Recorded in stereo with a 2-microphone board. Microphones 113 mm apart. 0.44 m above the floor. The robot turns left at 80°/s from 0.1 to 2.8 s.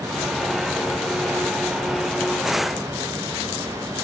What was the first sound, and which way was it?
Only background noise.